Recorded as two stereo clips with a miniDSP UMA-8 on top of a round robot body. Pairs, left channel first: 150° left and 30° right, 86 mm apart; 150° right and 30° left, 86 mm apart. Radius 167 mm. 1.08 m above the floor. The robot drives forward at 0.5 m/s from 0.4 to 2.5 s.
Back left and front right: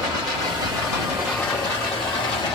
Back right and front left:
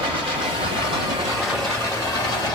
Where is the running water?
10° left, 0.7 m; by 2.6 s 170° left, 0.7 m.